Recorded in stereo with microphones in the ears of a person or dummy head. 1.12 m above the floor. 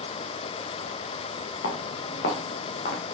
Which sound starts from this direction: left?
Footsteps, at 1.6 s.